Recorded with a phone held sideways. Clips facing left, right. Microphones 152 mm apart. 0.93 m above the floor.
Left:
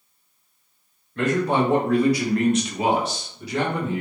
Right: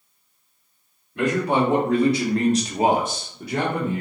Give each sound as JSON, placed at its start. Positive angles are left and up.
{"t": 1.1, "sound": "a man speaking", "side_deg": -10, "distance_m": 2.0}